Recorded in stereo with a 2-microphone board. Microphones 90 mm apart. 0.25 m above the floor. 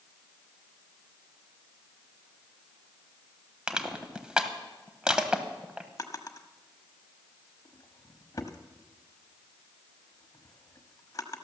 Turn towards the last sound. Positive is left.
turn(degrees=40)  # may be behind; listen again after turning